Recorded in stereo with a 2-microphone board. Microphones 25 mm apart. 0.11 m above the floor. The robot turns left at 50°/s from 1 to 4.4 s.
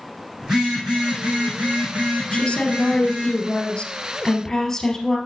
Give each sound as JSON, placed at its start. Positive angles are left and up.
{"t": 0.4, "sound": "a phone buzzing", "azimuth_deg": -35, "distance_m": 5.5}
{"t": 2.3, "sound": "a woman speaking", "azimuth_deg": 130, "distance_m": 2.5}